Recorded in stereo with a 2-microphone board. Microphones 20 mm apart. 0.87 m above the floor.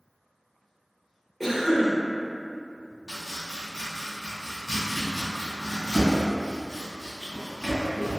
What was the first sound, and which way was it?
A cough, 5° left (ahead or behind).